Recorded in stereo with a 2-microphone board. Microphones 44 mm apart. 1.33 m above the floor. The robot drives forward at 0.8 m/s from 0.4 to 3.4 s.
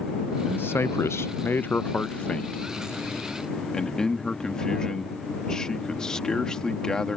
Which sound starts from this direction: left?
A man speaking, at 0.4 s.